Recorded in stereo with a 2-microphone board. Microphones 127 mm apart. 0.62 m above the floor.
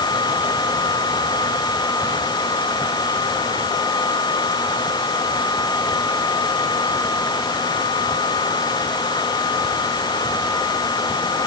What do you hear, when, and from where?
Only background noise.